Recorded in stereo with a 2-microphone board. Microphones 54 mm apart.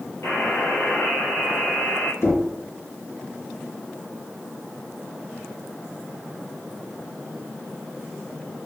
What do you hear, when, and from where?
0.2 s a buzzer: 60° left (ahead or behind), 3.5 m
2.2 s knocking: 60° left (ahead or behind), 2.5 m